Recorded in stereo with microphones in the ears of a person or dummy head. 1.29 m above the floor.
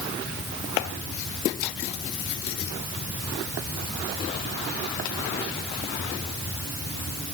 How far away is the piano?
I don't hear a piano.